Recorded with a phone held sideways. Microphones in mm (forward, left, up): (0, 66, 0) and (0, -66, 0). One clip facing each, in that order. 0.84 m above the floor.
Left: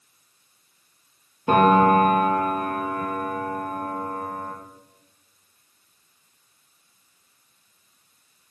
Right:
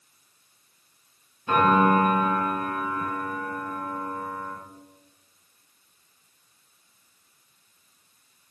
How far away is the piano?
About 7 m.